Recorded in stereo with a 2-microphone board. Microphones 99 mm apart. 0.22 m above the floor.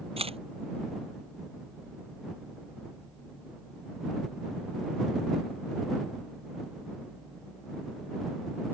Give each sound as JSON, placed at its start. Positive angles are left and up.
{"t": 0.2, "sound": "a camera shutter", "side_deg": -80}